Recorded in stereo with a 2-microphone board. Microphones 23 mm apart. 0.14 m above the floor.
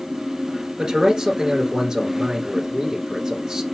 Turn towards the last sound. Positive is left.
turn(degrees=-25)  # may be behind; listen again after turning